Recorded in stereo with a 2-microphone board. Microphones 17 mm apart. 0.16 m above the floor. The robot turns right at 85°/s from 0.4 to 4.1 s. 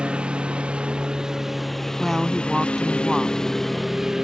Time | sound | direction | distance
0.0 | a lawn mower | 110° right | ?
2.0 | a woman speaking | 15° right (ahead or behind) | ?